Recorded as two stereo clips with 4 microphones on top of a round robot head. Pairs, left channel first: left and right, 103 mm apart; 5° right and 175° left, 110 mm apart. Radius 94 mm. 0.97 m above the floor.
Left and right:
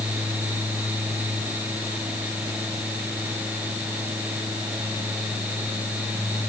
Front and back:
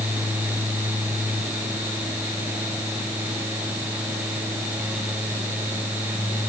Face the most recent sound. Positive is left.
No sound to turn to.